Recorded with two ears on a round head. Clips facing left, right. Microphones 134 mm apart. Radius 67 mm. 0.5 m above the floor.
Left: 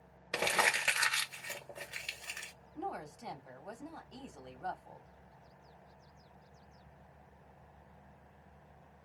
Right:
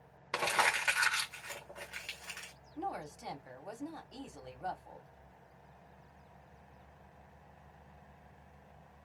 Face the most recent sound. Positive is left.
turn(degrees=-5)  # may be behind; listen again after turning